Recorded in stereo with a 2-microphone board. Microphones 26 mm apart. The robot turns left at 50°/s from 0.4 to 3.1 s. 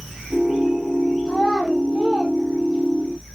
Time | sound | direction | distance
1.3 | a child speaking | 10° left (ahead or behind) | 3 m